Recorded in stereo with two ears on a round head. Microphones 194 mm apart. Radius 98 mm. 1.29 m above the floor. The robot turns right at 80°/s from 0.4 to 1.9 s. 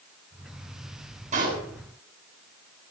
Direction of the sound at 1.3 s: 35° right (ahead or behind).